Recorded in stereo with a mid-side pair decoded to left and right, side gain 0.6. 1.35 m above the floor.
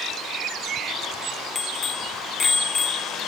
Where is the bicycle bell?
30° left, 2.5 m.